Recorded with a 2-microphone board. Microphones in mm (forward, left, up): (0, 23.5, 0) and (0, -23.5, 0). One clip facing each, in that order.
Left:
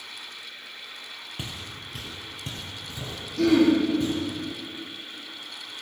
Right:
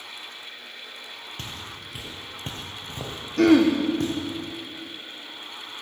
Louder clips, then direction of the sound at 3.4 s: Right 2 dB; 55° right (ahead or behind).